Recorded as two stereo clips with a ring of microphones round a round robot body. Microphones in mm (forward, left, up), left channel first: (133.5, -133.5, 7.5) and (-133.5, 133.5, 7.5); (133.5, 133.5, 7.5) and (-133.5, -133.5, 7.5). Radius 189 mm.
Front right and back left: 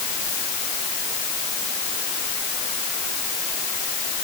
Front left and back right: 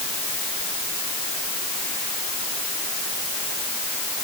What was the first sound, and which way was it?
Only background noise.